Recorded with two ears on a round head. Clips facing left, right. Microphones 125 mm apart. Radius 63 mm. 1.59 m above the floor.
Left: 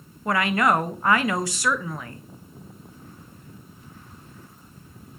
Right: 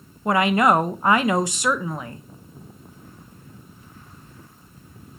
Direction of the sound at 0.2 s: 20° right (ahead or behind).